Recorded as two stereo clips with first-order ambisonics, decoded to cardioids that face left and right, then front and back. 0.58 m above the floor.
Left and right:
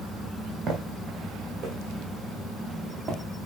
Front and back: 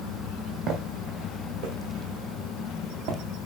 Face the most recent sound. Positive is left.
turn(degrees=-165)